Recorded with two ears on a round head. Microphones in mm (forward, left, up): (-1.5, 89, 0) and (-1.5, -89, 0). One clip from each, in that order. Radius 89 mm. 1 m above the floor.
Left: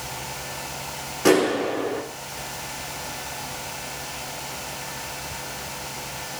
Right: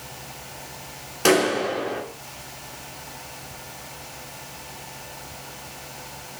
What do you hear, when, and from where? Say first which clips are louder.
1.2 s a clap: even; 65° right (ahead or behind), 8 m